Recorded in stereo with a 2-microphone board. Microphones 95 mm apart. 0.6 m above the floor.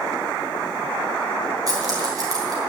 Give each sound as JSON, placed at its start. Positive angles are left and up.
{"t": 1.7, "sound": "keys jangling", "side_deg": -40, "distance_m": 4.0}